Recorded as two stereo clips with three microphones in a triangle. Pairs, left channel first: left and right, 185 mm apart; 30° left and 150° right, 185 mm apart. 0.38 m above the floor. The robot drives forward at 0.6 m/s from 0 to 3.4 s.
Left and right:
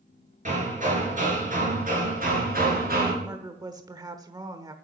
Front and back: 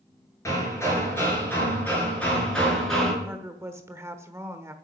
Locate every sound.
0.5 s hammering: 45° right, 5.5 m; by 3.1 s 60° right, 4.5 m
3.2 s a woman speaking: 90° right, 1.1 m; by 4.7 s 105° right, 1.1 m